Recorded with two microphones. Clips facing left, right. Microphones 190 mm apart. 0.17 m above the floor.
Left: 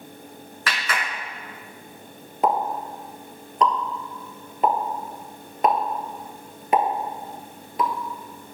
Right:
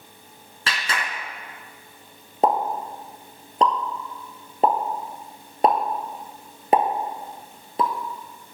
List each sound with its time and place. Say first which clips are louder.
0.7 s a clap: even; 30° right (ahead or behind), 1.8 m
2.4 s a pop: right 1 dB; 35° right (ahead or behind), 1.1 m